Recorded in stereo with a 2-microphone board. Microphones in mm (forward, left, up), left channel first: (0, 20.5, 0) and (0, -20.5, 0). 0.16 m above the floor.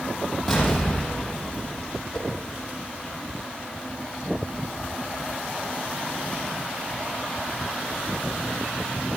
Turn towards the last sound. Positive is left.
turn(degrees=20)  # may be behind; listen again after turning